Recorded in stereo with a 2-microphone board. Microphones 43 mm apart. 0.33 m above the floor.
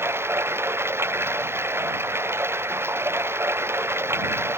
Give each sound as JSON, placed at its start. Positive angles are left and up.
{"t": 0.0, "sound": "running water", "side_deg": -75}